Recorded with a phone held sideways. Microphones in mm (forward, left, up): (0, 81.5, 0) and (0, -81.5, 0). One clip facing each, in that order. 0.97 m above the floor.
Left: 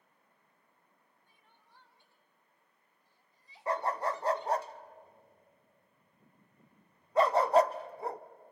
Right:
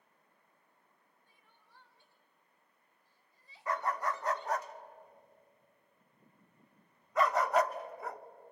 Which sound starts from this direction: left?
A dog barking, at 3.7 s.